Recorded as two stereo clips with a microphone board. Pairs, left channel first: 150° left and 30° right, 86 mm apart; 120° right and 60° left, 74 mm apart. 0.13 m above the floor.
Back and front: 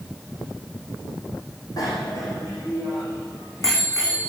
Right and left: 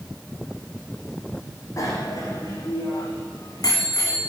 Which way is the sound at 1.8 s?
165° right.